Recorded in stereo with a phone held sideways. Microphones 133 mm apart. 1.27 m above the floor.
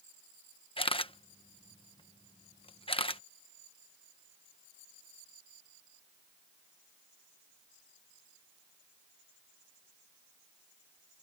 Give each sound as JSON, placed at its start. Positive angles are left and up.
{"t": 0.8, "sound": "a camera shutter", "side_deg": 40}